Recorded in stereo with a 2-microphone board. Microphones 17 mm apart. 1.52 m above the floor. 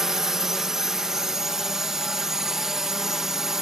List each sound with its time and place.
0.0 s a drone: 20° right (ahead or behind)